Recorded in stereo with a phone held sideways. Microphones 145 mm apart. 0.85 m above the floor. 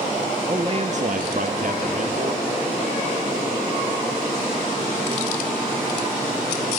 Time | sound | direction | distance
0.5 | a man speaking | 25° right (ahead or behind) | 0.9 m